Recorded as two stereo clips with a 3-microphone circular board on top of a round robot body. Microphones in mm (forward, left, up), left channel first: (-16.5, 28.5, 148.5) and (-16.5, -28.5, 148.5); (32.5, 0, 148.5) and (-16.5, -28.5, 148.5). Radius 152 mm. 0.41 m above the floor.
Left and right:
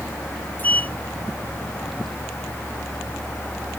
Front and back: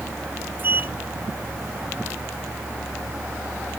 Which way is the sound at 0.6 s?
150° left.